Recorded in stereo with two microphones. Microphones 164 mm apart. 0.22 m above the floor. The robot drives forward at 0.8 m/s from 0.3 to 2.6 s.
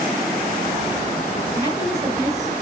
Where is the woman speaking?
35° right (ahead or behind), 3 m; by 2.5 s 45° right (ahead or behind), 2.5 m.